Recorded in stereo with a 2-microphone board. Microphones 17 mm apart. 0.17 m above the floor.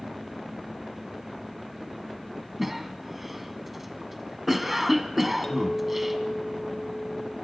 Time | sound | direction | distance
2.6 | a cough | 10° right (ahead or behind) | 1.2 m
5.4 | a clink | 40° left (ahead or behind) | 4 m